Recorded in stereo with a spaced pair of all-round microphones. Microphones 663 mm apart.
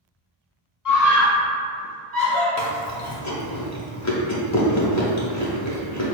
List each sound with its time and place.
0.8 s a scream: 30° left (ahead or behind), 1.1 m; by 2.5 s 15° left (ahead or behind), 2.0 m
2.6 s chewing: 25° left (ahead or behind), 0.6 m